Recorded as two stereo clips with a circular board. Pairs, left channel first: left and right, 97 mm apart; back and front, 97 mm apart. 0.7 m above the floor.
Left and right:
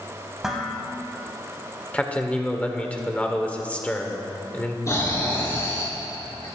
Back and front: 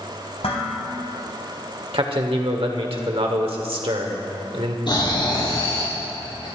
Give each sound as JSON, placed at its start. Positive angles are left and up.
{"t": 0.4, "sound": "dishes clattering", "azimuth_deg": -175, "distance_m": 3.0}
{"t": 1.9, "sound": "a man speaking", "azimuth_deg": 15, "distance_m": 1.7}
{"t": 4.9, "sound": "snoring", "azimuth_deg": 145, "distance_m": 5.5}